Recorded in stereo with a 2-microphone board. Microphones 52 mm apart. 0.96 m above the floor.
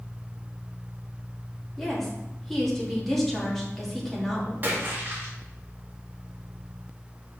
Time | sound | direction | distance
1.8 | a woman speaking | 5° left (ahead or behind) | 1.8 m
4.6 | a splash | 35° right (ahead or behind) | 1.9 m